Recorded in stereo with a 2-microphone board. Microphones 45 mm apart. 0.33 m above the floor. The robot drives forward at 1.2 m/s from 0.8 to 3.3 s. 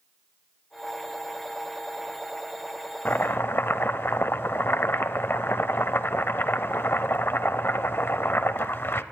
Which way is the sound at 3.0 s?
45° left (ahead or behind).